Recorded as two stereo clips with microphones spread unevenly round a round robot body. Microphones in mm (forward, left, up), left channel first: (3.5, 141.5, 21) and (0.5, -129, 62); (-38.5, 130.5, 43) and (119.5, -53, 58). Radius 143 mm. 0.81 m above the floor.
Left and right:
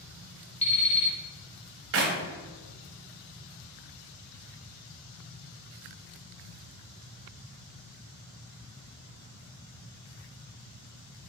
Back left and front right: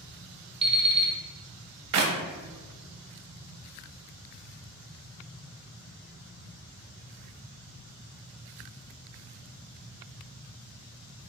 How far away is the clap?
About 0.6 m.